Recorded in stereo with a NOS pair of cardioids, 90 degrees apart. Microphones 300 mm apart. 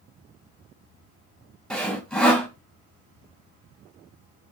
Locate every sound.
1.7 s sawing: 5° left, 1.2 m